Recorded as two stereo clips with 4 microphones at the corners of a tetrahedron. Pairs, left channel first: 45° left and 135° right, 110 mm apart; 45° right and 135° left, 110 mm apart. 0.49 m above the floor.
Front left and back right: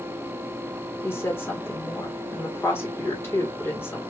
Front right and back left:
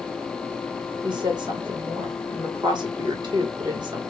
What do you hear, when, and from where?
1.0 s a woman speaking: 110° left, 1.5 m